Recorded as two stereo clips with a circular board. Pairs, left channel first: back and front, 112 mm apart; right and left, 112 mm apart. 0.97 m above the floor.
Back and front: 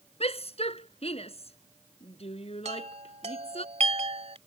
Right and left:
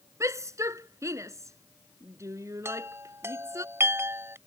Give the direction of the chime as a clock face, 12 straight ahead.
11 o'clock.